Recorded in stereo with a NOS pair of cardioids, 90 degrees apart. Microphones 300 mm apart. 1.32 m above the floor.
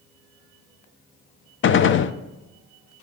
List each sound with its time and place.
1.6 s a gunshot: 40° left, 0.5 m